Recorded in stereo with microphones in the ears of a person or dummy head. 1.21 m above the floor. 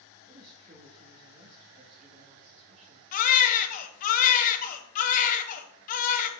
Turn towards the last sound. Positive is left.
turn(degrees=45)  # may be behind; listen again after turning